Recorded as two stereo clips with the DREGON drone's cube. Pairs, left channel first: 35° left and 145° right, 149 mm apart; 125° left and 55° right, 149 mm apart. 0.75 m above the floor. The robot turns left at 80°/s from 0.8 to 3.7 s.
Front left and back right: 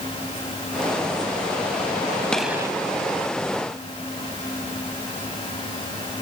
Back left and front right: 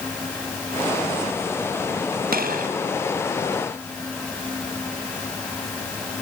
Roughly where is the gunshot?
Ahead right.